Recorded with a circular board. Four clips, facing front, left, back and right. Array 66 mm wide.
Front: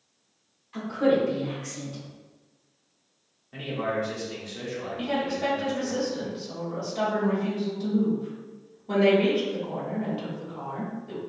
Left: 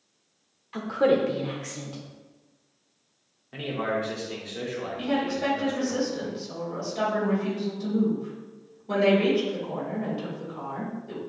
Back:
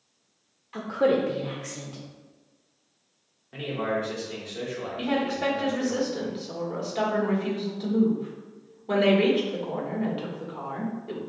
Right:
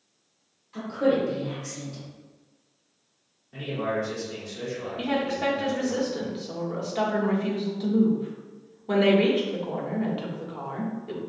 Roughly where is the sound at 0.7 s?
Behind left.